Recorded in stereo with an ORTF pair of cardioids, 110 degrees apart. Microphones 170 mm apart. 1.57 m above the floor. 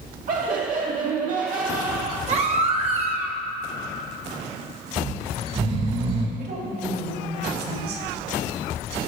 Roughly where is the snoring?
Ahead right.